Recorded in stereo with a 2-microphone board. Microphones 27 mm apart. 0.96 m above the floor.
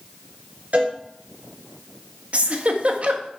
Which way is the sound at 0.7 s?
60° right (ahead or behind).